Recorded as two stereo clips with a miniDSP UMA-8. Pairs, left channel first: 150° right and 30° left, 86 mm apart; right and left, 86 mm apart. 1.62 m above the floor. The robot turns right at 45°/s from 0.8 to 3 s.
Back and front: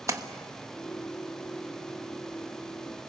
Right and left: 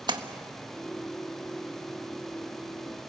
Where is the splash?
75° left, 1.3 m.